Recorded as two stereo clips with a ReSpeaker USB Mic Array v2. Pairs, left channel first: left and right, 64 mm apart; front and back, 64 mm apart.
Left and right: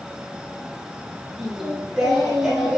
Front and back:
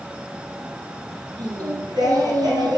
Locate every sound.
1.4 s singing: straight behind, 6.5 m